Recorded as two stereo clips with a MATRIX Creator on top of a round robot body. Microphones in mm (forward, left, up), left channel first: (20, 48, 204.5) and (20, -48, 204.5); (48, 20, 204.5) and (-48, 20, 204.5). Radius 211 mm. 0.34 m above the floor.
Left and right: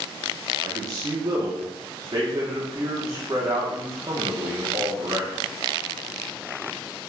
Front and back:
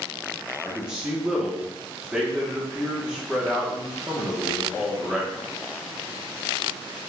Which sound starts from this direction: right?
A man speaking, at 0.6 s.